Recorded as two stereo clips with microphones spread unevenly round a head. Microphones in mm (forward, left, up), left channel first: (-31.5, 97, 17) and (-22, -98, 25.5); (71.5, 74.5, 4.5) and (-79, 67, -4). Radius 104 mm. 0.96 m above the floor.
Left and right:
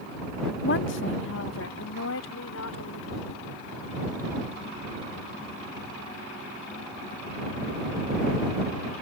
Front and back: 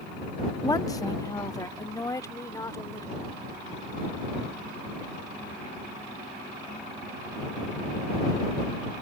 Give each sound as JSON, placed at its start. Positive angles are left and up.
{"t": 0.6, "sound": "a woman speaking", "azimuth_deg": 70}